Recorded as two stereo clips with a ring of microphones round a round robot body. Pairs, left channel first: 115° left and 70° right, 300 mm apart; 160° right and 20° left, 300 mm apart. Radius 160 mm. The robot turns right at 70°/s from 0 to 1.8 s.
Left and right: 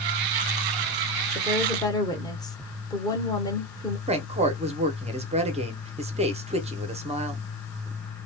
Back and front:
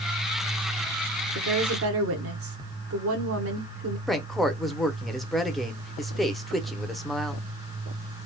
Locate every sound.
1.4 s a woman speaking: 5° left, 1.2 m; by 4.0 s 40° left, 1.2 m
4.1 s a woman speaking: 70° right, 0.8 m